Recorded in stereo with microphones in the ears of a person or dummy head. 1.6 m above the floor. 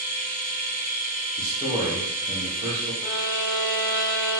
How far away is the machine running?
About 0.9 m.